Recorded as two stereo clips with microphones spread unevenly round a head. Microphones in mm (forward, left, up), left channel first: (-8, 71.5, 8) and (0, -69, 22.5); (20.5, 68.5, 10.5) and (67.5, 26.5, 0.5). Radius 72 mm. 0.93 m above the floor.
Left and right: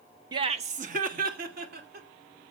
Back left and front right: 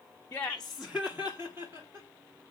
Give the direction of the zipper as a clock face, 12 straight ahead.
No zipper in this recording.